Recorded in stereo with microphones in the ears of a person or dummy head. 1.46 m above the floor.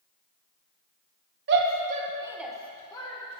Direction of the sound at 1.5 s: 65° right (ahead or behind).